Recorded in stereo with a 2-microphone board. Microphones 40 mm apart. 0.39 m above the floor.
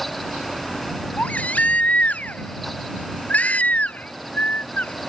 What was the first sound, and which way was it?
A baby crying, 35° left (ahead or behind).